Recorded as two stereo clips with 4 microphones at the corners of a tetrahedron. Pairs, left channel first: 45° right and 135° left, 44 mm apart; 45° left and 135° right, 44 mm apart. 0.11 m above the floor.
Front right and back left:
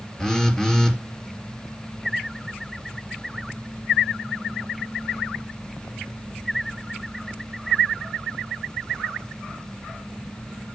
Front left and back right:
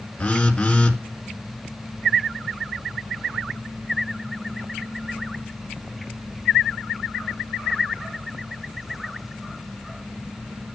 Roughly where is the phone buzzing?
Ahead.